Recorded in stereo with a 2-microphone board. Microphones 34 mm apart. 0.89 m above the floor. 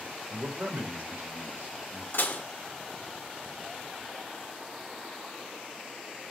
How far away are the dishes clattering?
About 1.5 m.